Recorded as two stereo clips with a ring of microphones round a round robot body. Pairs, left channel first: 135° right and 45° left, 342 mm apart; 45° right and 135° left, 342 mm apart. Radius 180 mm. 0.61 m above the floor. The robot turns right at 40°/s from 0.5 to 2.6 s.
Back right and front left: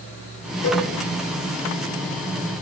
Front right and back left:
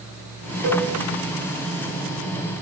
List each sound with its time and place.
0.6 s a cowbell: 170° left, 8 m; by 0.9 s straight behind, 8 m